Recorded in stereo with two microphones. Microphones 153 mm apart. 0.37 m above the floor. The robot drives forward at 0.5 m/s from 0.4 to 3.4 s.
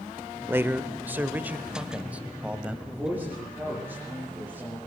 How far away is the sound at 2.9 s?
About 8 m.